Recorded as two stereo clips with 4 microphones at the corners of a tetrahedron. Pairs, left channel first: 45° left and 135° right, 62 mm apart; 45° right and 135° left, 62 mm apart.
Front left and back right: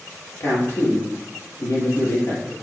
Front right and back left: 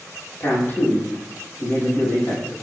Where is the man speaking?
10° left, 3 m.